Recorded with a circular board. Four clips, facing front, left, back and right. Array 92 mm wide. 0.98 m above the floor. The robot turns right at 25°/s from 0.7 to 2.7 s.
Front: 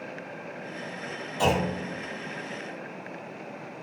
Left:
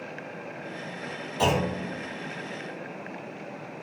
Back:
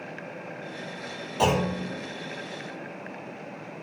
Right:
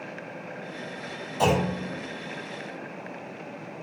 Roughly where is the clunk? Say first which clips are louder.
Right 2 dB, back 1 dB; behind.